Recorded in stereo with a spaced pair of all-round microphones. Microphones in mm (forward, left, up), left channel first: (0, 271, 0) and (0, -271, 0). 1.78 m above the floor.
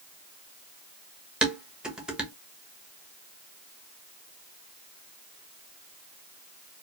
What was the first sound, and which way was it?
Dishes clattering, centre (ahead or behind).